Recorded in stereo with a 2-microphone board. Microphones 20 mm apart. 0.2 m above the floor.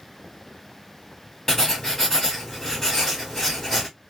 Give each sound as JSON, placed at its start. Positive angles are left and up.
{"t": 1.5, "sound": "writing", "side_deg": 20, "distance_m": 1.3}